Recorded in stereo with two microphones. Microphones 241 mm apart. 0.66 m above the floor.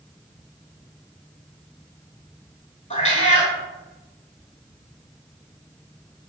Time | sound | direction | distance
2.9 | a cat meowing | 30° left (ahead or behind) | 0.6 m